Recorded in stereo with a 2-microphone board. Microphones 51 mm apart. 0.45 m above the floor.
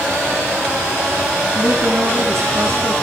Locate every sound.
1.6 s a woman speaking: 75° right (ahead or behind), 7 m